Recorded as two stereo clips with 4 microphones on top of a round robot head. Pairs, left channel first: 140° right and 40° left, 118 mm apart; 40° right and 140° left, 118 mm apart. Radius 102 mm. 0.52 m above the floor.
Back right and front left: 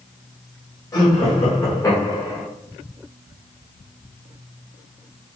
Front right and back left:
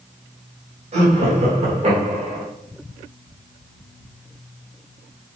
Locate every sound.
0.9 s laughter: 160° left, 3 m